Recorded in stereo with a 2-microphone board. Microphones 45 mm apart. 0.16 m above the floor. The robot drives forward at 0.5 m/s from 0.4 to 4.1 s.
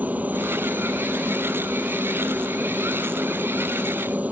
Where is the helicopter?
35° right (ahead or behind).